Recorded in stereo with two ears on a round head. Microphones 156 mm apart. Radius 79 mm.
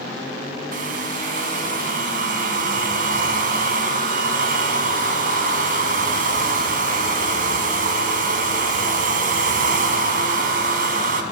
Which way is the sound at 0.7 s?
50° right (ahead or behind).